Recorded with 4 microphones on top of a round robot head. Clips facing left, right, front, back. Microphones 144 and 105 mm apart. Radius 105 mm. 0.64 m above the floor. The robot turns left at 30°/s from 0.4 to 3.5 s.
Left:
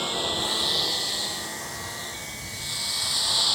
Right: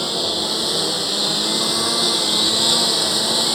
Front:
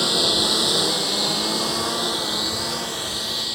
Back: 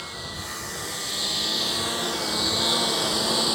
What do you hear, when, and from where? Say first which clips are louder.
0.0 s a lawn mower: right 5 dB, front 14 dB; 30° right; by 3.5 s 120° right